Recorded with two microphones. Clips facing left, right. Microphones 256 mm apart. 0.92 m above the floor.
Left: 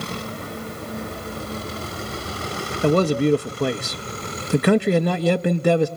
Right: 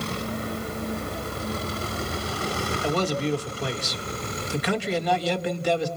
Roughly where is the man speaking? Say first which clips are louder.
Left 9 dB; left.